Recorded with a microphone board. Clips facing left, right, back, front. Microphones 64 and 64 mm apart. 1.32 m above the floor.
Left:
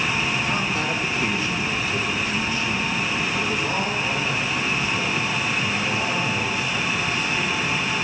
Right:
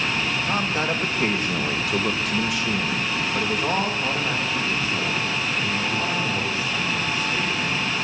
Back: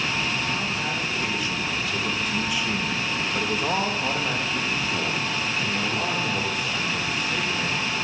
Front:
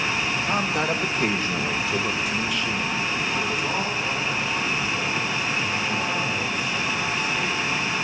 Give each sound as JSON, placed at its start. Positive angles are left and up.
{"t": 0.5, "sound": "a man speaking", "azimuth_deg": -30, "distance_m": 2.5}